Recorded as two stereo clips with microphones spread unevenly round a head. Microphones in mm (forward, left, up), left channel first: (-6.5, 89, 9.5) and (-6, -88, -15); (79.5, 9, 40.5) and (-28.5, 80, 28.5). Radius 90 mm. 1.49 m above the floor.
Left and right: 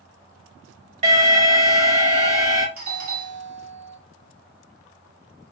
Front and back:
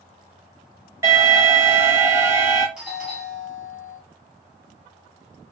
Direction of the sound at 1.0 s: 140° right.